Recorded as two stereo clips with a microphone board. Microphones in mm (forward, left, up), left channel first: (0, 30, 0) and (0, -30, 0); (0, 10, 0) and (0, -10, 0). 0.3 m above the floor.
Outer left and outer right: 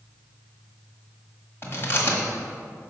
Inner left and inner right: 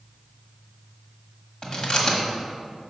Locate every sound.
1.6 s chewing: 40° left (ahead or behind), 1.5 m